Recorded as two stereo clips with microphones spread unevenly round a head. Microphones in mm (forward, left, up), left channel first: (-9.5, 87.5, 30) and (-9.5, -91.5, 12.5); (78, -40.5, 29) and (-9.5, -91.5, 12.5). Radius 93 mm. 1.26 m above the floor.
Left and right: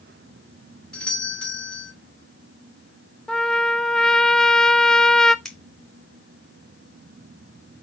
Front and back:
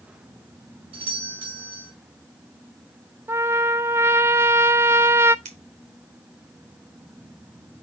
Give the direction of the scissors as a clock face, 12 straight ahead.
6 o'clock.